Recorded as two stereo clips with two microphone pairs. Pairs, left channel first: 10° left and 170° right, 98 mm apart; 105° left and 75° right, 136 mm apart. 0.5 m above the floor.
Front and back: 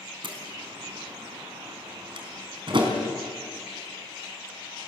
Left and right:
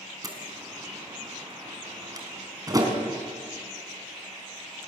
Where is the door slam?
135° right, 4 m.